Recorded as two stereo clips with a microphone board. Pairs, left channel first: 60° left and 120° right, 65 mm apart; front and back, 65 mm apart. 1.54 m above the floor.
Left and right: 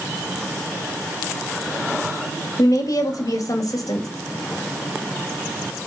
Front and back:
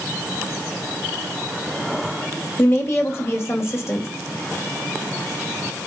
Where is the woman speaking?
45° left, 2 m.